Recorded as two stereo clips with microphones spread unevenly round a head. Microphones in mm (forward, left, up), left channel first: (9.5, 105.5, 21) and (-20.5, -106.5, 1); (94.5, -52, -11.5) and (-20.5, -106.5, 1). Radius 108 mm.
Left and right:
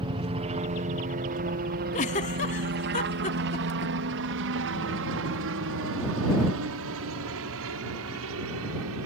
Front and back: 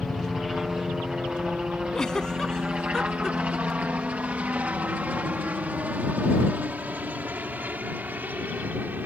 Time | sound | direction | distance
0.0 | a helicopter | 60° right | ?
1.9 | a giggle | 115° left | ?